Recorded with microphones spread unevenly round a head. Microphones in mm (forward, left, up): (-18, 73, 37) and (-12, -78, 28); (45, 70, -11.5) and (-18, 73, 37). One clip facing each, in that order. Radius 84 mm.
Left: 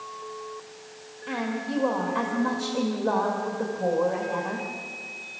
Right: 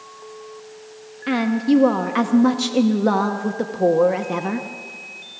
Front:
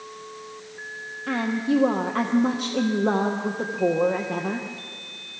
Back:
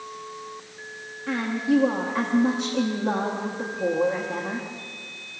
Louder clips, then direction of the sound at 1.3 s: Right 12 dB, even; 85° right.